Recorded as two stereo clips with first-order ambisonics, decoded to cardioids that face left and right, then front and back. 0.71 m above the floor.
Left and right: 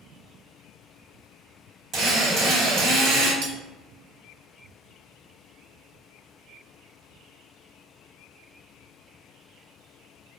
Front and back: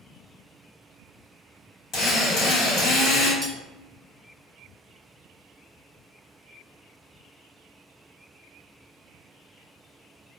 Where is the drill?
45° right, 1.3 m.